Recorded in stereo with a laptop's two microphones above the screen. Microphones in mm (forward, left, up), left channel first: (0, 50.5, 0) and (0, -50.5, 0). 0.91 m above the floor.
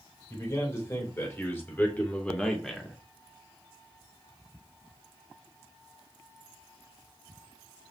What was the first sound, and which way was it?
A man speaking, 30° left (ahead or behind).